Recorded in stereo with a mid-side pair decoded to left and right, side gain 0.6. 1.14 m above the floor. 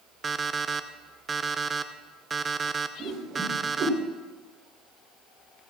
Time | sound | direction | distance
0.2 | an alarm clock | 25° right | 0.7 m
3.0 | a whoosh | 50° right | 3.5 m